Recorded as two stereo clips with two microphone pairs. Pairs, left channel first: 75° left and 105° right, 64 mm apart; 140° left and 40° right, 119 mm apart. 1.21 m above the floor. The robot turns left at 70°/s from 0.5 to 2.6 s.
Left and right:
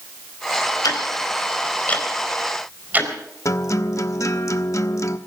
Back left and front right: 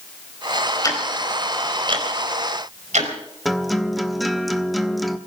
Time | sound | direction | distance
0.8 | ticking | 80° left | 4 m
3.5 | a guitar | 50° left | 1.1 m